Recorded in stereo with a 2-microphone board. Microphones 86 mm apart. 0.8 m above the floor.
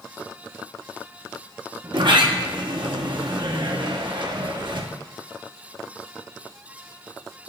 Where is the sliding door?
65° right (ahead or behind), 0.8 m.